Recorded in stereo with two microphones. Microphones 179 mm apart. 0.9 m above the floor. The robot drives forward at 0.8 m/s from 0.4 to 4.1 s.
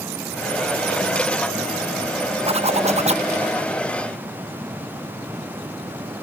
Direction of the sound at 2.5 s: 35° right (ahead or behind).